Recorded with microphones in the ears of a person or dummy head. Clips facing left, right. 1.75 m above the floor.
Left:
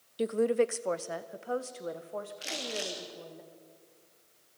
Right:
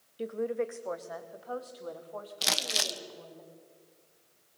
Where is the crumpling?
65° right (ahead or behind), 1.1 m.